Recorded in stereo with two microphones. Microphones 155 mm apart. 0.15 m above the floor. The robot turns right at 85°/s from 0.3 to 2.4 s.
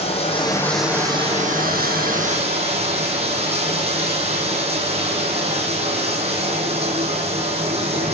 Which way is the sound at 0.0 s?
140° left.